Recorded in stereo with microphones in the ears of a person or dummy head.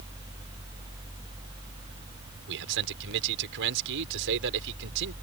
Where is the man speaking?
65° right (ahead or behind).